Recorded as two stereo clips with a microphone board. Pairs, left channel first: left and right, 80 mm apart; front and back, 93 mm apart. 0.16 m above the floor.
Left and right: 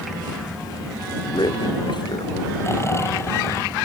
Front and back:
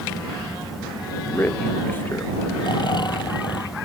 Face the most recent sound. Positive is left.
turn(degrees=35)